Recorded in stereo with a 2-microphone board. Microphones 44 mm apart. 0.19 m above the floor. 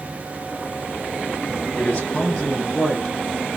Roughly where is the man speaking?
Left.